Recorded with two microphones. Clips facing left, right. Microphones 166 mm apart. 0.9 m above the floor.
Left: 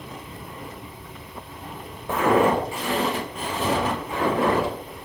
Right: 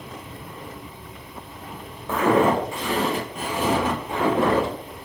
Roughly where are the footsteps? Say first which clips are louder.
Even; centre.